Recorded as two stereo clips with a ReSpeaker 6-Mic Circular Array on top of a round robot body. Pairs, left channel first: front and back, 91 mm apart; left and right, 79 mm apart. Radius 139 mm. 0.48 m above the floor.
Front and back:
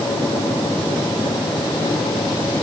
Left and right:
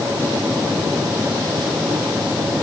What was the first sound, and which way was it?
Only background noise.